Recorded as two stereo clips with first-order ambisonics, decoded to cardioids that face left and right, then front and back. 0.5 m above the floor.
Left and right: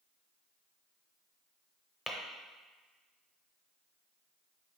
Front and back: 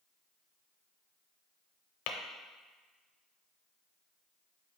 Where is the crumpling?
No crumpling in this recording.